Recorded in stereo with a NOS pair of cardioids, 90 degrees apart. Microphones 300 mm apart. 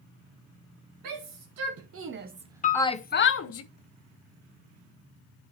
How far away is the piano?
About 1.5 m.